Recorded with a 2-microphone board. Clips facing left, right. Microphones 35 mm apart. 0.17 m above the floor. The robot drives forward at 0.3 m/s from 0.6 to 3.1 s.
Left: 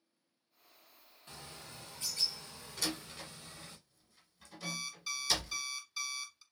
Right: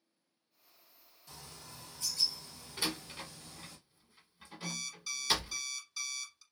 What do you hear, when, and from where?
1.3 s a bird: 40° left (ahead or behind), 1.6 m; by 3.8 s 45° left (ahead or behind), 1.6 m
2.8 s a door slam: 25° right (ahead or behind), 0.9 m
4.6 s an alarm clock: 15° left (ahead or behind), 1.0 m